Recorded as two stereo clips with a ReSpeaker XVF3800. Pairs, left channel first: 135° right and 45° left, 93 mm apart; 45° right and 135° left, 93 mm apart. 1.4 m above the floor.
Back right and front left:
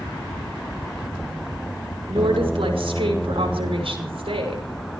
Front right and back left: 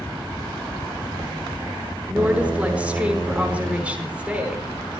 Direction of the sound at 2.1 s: 60° left.